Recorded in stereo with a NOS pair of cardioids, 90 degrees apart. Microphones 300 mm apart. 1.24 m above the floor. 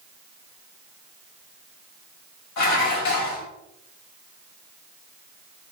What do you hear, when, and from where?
2.6 s dishes clattering: 65° left, 4.5 m